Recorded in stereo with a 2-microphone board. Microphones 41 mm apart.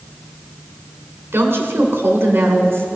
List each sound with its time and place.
1.3 s a woman speaking: 75° right (ahead or behind), 2.5 m